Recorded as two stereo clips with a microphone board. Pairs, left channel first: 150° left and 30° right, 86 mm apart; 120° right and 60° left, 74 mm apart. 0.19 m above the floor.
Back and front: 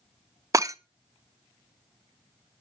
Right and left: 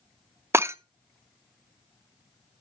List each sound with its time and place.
0.5 s breaking glass: 15° left, 0.5 m